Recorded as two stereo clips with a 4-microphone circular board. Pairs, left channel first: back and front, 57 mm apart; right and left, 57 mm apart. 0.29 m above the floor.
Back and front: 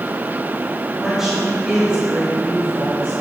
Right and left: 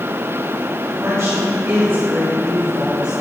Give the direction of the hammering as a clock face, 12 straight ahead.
I don't hear hammering.